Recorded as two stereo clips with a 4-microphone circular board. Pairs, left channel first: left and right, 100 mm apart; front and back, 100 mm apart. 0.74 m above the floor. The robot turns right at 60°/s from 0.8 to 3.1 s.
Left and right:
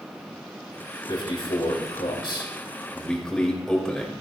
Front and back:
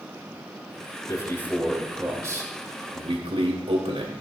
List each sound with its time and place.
1.1 s a man speaking: 50° left, 3 m; by 4.1 s 170° left, 3 m